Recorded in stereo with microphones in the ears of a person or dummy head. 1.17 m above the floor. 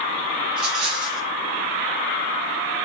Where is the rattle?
30° right (ahead or behind), 6 m.